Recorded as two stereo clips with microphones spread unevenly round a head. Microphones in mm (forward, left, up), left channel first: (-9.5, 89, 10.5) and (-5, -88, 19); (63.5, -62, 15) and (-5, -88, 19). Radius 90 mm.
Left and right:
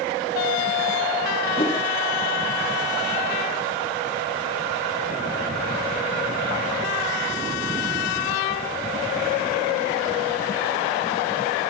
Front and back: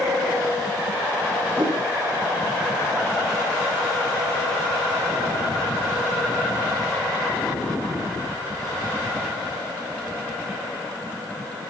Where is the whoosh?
155° left, 3 m.